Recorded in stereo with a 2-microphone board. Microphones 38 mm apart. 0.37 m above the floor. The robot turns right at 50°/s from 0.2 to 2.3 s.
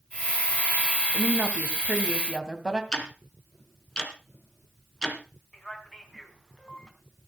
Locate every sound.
1.1 s a woman speaking: 75° right, 2.5 m; by 2.8 s 20° right, 2.5 m
2.9 s ticking: 15° left (ahead or behind), 3 m
5.5 s a man speaking: 10° left (ahead or behind), 3.5 m